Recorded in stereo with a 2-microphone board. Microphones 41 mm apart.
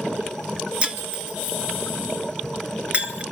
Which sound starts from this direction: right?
Breaking glass, at 0.8 s.